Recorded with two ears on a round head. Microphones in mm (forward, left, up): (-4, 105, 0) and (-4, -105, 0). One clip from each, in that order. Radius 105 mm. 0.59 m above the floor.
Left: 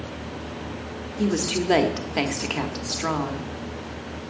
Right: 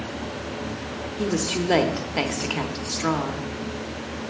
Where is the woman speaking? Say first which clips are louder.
Left 1 dB; 5° left (ahead or behind), 0.9 m.